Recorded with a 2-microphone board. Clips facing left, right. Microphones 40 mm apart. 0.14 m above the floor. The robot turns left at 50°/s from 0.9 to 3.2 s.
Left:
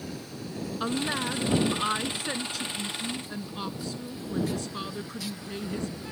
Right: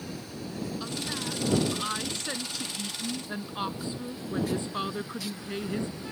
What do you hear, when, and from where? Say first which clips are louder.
0.8 s a woman speaking: left 5 dB; 80° left; by 6.0 s 35° right